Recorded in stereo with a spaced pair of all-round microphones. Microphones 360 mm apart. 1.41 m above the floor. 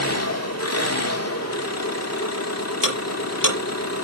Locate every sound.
0.0 s an engine running: 45° left (ahead or behind), 1.8 m
2.8 s ticking: 60° left (ahead or behind), 6.5 m